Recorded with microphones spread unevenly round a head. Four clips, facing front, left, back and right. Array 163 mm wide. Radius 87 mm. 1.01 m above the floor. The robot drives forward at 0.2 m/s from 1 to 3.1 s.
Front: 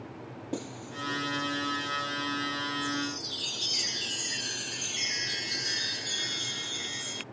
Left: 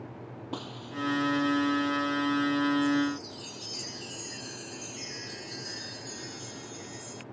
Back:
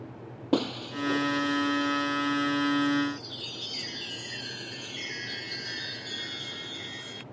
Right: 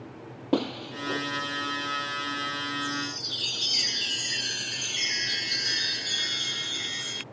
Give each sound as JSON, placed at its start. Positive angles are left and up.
{"t": 0.5, "sound": "breaking glass", "azimuth_deg": -135}
{"t": 2.8, "sound": "a chime", "azimuth_deg": -75}